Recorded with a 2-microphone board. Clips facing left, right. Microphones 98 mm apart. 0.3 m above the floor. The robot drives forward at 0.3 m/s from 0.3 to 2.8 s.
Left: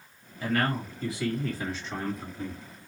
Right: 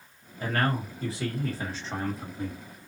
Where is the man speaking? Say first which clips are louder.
Even; 40° right (ahead or behind), 1.5 m; by 2.9 s 35° right (ahead or behind), 1.6 m.